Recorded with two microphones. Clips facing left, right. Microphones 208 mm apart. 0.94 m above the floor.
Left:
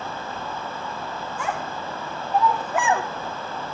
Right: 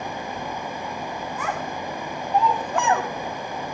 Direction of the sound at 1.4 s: 30° left (ahead or behind).